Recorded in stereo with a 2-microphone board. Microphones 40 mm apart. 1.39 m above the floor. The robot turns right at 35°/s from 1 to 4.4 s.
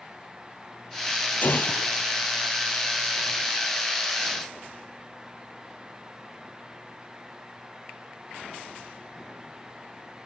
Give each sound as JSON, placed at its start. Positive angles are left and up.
{"t": 1.4, "sound": "a gunshot", "side_deg": 50}